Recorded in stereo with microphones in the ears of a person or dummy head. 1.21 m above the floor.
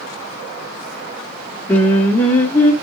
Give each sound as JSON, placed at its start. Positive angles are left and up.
{"t": 1.7, "sound": "singing", "side_deg": 5, "distance_m": 1.3}